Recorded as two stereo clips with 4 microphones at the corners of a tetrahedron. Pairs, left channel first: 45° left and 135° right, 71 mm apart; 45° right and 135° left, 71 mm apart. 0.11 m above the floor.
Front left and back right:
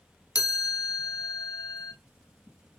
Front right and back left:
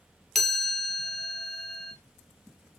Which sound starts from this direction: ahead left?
A chime, at 0.3 s.